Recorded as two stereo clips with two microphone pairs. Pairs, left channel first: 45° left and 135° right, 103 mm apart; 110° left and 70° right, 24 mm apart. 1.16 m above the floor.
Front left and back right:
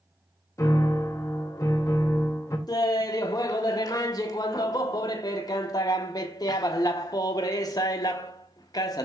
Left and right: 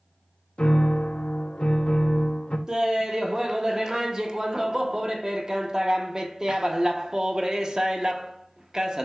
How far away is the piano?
About 0.6 m.